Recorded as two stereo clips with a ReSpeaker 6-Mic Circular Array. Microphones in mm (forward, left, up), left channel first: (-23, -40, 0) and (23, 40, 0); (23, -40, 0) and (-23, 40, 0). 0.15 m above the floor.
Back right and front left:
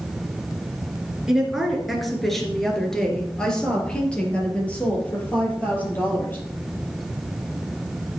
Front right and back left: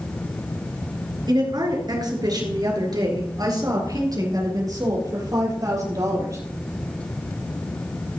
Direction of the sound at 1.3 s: 140° left.